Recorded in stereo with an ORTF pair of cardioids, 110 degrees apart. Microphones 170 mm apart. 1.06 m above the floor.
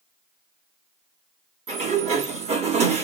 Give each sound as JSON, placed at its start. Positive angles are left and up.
{"t": 1.7, "sound": "a sliding door", "azimuth_deg": -40, "distance_m": 1.3}